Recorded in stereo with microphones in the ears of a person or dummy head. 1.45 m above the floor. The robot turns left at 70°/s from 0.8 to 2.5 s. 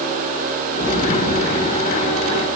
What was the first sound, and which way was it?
An explosion, 155° right.